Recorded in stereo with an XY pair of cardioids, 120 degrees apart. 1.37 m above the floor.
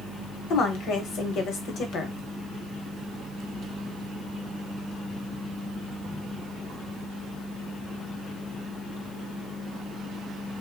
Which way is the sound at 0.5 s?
65° left.